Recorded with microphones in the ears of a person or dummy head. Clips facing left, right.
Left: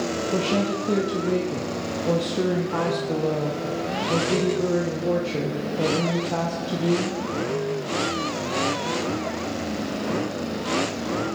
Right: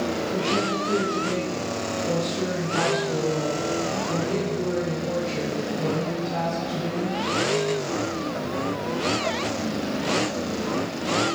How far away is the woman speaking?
About 0.6 m.